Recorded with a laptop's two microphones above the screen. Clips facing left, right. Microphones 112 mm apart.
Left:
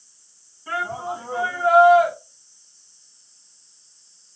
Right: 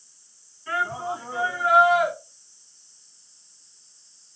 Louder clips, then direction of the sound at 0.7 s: Even; 25° left (ahead or behind).